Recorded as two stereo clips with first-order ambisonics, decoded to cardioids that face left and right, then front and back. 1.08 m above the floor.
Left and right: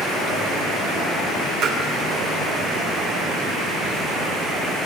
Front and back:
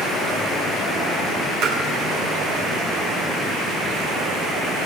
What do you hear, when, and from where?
1.6 s tapping: 145° right, 7 m